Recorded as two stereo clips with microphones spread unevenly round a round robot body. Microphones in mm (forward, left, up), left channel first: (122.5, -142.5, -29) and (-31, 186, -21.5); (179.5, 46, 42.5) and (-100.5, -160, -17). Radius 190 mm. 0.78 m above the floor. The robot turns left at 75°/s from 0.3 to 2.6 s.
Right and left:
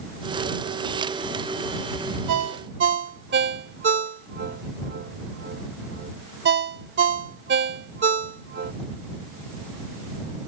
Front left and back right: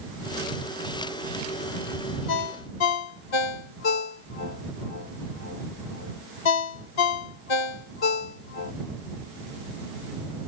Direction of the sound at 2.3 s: 80° left.